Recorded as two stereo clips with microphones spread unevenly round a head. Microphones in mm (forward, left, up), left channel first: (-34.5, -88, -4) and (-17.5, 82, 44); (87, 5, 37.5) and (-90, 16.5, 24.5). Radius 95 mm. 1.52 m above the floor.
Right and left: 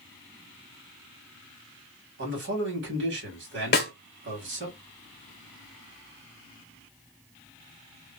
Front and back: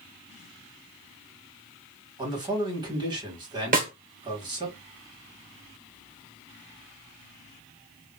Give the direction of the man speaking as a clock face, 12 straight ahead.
8 o'clock.